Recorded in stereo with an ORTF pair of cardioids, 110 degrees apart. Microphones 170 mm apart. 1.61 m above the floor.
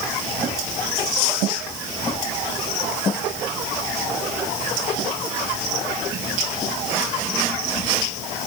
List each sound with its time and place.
Only background noise.